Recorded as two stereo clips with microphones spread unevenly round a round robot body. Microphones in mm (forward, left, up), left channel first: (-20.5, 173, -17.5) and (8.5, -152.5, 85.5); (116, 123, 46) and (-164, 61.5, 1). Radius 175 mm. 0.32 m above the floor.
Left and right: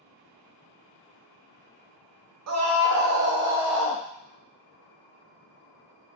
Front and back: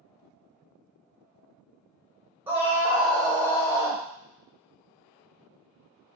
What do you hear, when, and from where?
2.5 s a scream: 105° right, 1.1 m; by 4.0 s 95° left, 1.0 m